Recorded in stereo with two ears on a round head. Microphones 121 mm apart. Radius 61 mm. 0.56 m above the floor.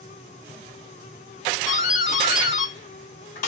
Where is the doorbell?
55° left (ahead or behind), 2.5 m.